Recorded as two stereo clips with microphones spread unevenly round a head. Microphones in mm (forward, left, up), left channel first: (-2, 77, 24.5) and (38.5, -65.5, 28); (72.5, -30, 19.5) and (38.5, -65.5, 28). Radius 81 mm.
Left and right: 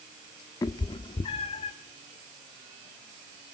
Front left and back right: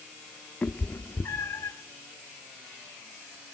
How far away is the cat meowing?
About 1.1 m.